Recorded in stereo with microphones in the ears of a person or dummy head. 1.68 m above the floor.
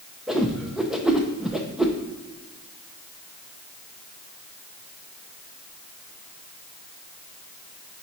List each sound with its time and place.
0.3 s a whoosh: 5° right (ahead or behind), 0.8 m